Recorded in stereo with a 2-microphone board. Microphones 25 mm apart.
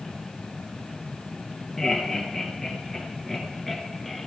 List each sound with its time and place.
1.8 s laughter: 15° left (ahead or behind), 2.5 m; by 4.3 s 10° left (ahead or behind), 1.5 m